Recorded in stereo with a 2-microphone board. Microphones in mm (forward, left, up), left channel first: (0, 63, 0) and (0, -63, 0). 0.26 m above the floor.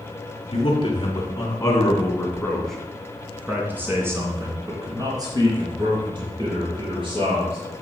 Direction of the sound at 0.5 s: 45° left (ahead or behind).